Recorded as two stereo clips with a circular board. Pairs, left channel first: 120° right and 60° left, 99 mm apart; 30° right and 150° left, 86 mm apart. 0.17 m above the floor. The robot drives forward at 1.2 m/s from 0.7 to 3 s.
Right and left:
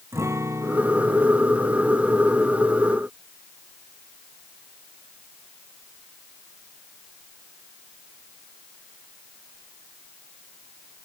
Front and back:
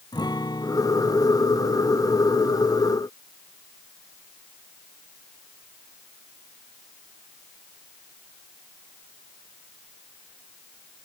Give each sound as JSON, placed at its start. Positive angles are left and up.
{"t": 0.1, "sound": "a guitar", "azimuth_deg": 0}